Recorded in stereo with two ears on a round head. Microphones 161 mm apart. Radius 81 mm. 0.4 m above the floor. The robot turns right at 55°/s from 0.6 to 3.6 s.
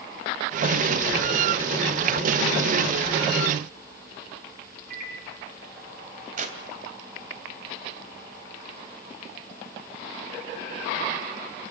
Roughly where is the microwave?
Right.